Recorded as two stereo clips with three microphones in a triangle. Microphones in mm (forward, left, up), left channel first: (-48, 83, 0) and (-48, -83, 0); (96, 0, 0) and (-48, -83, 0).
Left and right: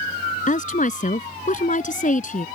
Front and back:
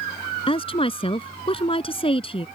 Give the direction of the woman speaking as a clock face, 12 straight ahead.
9 o'clock.